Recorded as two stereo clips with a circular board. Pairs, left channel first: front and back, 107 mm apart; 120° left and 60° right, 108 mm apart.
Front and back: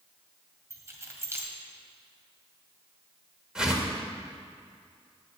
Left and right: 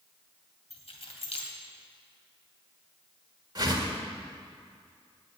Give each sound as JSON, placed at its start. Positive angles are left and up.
{"t": 0.7, "sound": "keys jangling", "azimuth_deg": 120, "distance_m": 2.5}
{"t": 3.5, "sound": "a whoosh", "azimuth_deg": -100, "distance_m": 1.9}